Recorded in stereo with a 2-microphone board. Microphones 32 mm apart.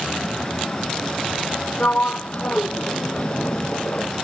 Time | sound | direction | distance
1.8 | a sliding door | 55° left (ahead or behind) | ?